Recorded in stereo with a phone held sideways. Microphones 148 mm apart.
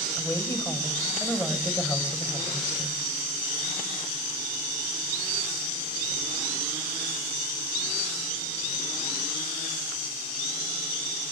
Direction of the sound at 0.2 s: 15° left (ahead or behind).